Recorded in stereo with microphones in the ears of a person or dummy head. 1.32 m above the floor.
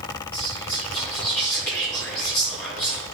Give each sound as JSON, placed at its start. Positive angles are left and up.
{"t": 0.3, "sound": "whispering", "side_deg": 10, "distance_m": 2.0}